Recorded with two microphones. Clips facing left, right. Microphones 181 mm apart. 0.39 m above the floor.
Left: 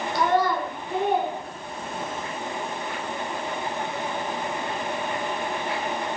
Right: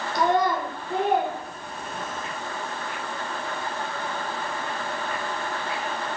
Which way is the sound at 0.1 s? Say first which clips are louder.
Even; 20° right (ahead or behind).